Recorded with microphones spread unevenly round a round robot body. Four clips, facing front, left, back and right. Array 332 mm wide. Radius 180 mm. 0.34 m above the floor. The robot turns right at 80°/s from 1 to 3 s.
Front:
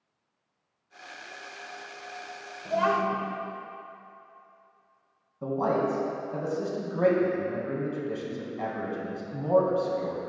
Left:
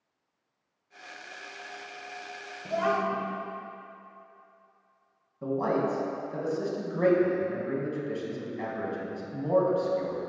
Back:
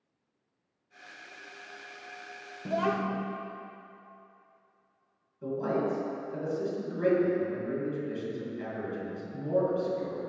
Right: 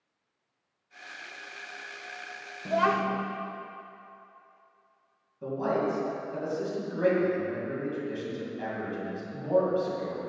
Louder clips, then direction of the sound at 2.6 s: Right 2 dB, front 4 dB; 160° right.